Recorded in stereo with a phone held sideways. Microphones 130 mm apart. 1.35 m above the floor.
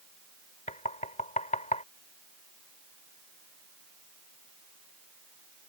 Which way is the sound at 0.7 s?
70° left (ahead or behind).